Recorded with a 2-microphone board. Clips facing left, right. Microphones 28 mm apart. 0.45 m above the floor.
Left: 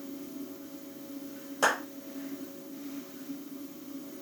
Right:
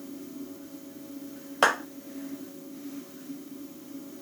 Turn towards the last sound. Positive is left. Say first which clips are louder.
# right 4 dB
turn(degrees=-55)  # may be behind; listen again after turning